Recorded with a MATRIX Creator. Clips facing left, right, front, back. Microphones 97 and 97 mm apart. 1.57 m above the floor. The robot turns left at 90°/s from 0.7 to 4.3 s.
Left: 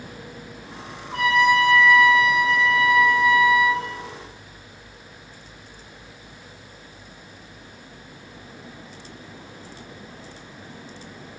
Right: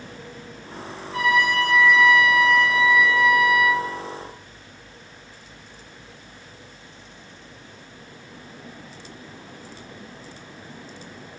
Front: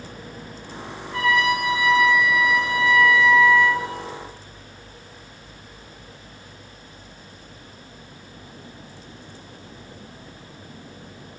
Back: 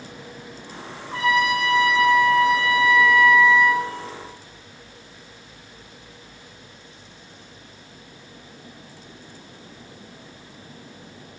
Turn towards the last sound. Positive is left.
turn(degrees=-160)